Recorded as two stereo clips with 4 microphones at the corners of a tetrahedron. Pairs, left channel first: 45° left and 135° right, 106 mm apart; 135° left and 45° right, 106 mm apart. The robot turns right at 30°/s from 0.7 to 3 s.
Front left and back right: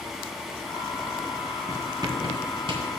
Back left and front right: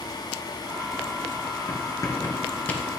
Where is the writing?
175° left, 2.5 m; by 2.9 s 145° right, 2.5 m.